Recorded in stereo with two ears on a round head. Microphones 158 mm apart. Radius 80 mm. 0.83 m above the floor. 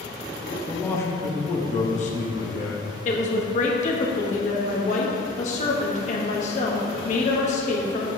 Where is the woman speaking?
40° left (ahead or behind), 1.2 m.